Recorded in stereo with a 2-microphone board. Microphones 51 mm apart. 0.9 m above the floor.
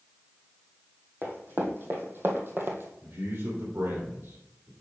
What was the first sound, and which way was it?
Running footsteps, 45° right (ahead or behind).